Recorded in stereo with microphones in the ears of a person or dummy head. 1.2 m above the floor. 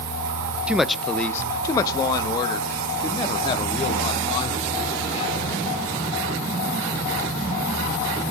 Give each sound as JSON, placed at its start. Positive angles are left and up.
{"t": 0.7, "sound": "a woman speaking", "side_deg": -10, "distance_m": 0.6}